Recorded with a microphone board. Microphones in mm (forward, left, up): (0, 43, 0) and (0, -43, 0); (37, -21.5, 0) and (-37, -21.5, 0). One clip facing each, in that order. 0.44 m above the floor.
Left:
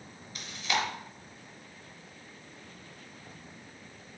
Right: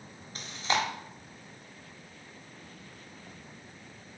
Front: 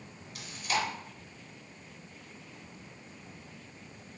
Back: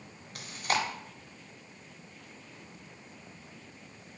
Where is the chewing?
140° right, 0.7 m.